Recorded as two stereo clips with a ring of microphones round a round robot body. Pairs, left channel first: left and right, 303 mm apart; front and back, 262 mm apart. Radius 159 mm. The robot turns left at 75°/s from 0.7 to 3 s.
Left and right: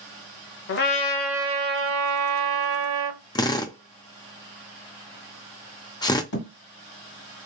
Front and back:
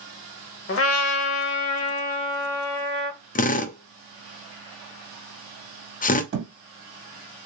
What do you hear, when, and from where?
0.7 s a trumpet: 40° left, 0.6 m; by 3.2 s 130° right, 0.6 m
3.4 s a drill: 25° left, 0.7 m
6.3 s a thud: 135° left, 2.0 m